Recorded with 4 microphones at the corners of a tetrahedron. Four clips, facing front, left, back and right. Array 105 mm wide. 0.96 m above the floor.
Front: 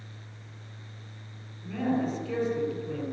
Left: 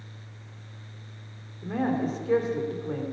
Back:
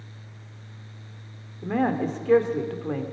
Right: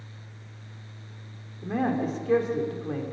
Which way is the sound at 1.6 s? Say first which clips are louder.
Even, back 4 dB; straight behind.